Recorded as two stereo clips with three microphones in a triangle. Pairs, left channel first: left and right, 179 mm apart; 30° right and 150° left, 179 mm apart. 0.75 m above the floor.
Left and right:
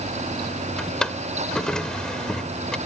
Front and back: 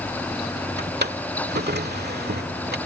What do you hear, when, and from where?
0.8 s a drawer: 175° left